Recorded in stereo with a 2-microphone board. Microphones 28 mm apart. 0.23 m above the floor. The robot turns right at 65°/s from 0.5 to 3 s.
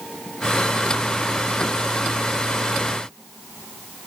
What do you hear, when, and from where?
Only background noise.